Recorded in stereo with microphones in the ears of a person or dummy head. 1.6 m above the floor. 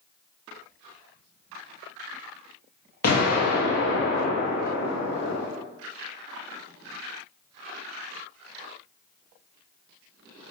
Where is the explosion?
50° left (ahead or behind), 0.8 m.